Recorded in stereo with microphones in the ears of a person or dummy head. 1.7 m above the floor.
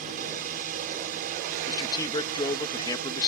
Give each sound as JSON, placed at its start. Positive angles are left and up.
{"t": 0.0, "sound": "a drone", "side_deg": -45}
{"t": 1.7, "sound": "a man speaking", "side_deg": 25}